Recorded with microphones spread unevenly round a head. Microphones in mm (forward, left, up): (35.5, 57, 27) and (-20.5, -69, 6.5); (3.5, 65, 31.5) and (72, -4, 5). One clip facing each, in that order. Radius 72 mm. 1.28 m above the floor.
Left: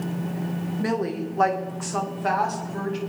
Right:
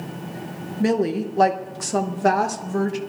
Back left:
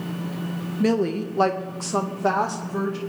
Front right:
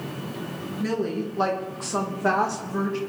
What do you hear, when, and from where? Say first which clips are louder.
0.8 s a woman speaking: right 6 dB, back left 5 dB; 175° right, 1.5 m; by 3.0 s 140° right, 2 m